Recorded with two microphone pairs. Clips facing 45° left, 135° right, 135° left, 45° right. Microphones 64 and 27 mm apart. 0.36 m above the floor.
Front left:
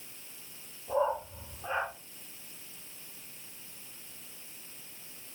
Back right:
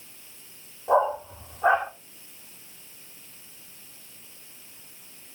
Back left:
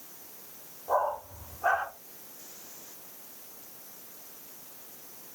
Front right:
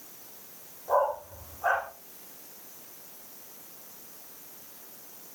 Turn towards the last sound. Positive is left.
turn(degrees=-145)